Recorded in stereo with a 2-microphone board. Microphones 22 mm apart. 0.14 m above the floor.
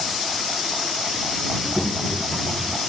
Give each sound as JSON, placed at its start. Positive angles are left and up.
{"t": 1.5, "sound": "a child speaking", "side_deg": 10}